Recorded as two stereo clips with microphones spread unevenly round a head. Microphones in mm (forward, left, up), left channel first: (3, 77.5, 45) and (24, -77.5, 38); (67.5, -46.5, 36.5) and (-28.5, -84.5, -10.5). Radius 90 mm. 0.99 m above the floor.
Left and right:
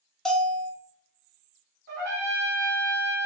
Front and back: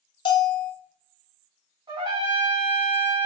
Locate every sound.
0.2 s a bell: 10° left, 0.7 m
1.9 s a trumpet: 115° right, 1.5 m